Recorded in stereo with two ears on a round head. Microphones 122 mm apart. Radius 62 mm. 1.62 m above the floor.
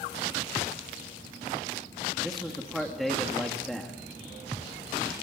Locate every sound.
2.2 s a man speaking: centre (ahead or behind), 2.5 m